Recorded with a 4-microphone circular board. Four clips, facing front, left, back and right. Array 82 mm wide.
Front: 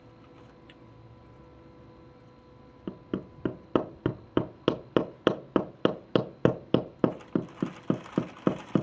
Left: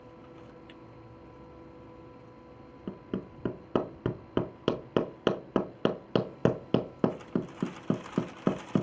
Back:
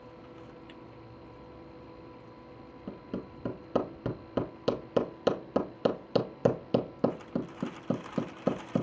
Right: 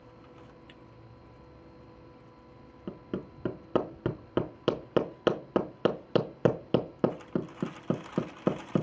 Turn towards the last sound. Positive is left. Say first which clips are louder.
# even, front 4 dB
turn(degrees=5)